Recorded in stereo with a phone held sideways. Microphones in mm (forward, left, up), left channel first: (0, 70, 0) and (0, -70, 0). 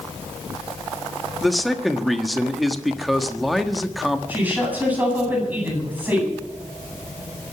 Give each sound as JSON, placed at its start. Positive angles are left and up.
{"t": 1.4, "sound": "a man speaking", "side_deg": 0, "distance_m": 1.3}
{"t": 4.3, "sound": "a woman speaking", "side_deg": -15, "distance_m": 9.0}